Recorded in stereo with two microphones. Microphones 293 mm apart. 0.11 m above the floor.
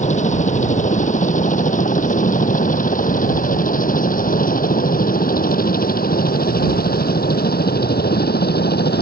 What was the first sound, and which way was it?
A helicopter, 25° left (ahead or behind).